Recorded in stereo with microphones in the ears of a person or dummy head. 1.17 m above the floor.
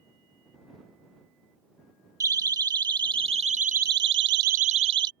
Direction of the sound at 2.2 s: 20° right (ahead or behind).